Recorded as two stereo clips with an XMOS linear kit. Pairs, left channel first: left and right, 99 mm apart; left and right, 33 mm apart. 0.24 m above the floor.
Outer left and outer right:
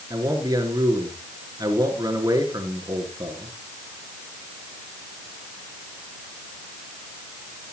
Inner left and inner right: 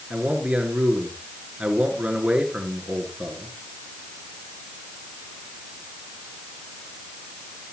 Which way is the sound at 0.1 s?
40° right (ahead or behind).